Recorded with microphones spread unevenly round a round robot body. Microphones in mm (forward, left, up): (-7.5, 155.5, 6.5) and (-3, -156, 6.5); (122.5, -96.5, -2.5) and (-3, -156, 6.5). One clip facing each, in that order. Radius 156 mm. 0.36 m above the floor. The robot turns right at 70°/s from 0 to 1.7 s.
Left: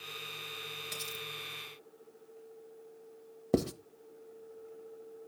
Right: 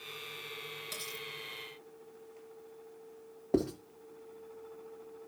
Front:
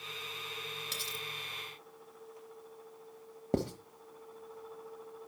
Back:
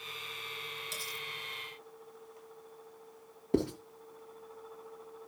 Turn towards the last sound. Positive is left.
turn(degrees=80)